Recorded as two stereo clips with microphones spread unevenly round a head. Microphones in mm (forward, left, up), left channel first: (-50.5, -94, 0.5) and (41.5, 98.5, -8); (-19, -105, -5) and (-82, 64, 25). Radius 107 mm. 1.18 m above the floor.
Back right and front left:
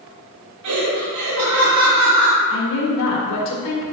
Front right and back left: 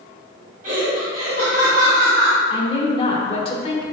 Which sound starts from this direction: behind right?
A woman speaking, at 2.5 s.